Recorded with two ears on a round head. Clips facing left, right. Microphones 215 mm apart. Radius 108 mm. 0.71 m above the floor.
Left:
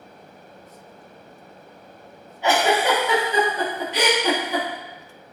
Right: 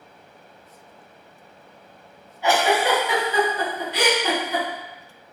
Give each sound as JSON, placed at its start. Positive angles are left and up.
{"t": 2.4, "sound": "a giggle", "side_deg": 20, "distance_m": 1.3}